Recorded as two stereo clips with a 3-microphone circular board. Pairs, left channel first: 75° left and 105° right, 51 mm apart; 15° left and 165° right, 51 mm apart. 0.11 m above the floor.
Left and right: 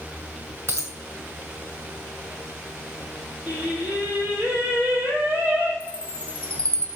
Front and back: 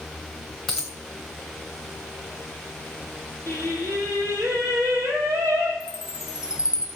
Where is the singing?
160° right, 2.5 m.